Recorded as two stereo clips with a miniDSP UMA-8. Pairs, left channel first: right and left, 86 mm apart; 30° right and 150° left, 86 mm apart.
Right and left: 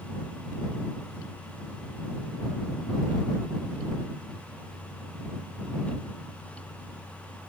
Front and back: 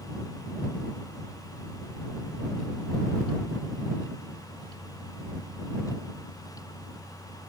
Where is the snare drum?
No snare drum in this recording.